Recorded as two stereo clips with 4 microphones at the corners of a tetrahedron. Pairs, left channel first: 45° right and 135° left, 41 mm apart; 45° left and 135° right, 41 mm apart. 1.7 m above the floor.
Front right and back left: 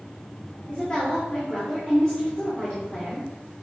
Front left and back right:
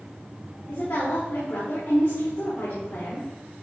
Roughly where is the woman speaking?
Ahead left.